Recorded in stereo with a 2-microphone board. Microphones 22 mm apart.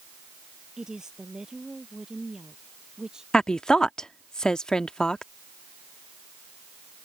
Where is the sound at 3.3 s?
35° left (ahead or behind).